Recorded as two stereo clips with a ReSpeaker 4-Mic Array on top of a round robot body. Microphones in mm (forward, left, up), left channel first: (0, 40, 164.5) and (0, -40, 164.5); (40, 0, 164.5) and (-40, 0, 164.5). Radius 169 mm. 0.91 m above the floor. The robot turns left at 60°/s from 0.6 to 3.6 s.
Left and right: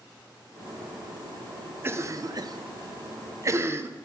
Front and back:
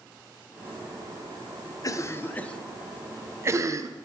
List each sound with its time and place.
1.8 s a cough: 35° right, 0.6 m; by 4.1 s 140° right, 0.6 m